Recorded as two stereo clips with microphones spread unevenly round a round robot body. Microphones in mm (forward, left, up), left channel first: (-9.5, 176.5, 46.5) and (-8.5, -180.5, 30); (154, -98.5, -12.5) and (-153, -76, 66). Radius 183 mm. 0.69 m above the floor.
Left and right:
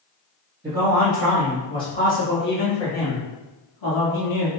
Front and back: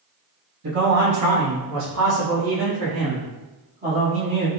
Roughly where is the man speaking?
Behind right.